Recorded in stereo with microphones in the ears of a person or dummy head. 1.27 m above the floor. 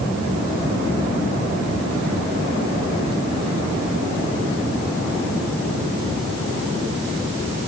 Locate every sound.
Only background noise.